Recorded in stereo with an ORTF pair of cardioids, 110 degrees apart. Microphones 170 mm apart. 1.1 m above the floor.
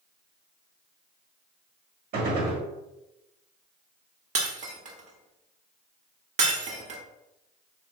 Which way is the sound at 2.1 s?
65° right.